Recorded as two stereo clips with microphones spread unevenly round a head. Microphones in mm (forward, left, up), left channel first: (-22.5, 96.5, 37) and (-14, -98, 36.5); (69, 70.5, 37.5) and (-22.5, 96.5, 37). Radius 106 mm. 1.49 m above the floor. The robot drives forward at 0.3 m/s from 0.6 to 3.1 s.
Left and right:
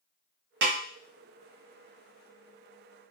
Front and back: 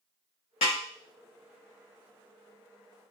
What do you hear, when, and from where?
0.6 s a snare drum: 45° right, 0.6 m; by 0.8 s 55° right, 0.5 m